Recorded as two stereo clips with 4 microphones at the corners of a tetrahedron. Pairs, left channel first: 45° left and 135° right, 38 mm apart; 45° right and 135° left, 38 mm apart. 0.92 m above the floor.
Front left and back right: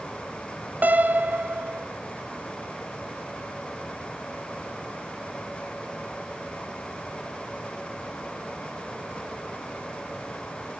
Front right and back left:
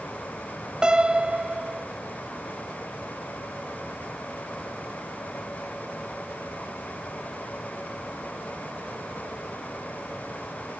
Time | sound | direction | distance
0.8 | a piano | 160° right | 0.6 m